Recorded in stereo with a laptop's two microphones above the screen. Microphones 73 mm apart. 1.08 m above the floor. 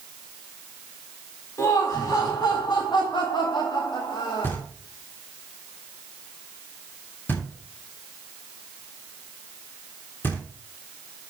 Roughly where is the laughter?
Left.